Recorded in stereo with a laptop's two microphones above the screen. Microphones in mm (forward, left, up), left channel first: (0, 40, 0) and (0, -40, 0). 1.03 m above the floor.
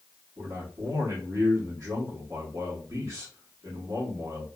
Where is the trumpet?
I don't hear a trumpet.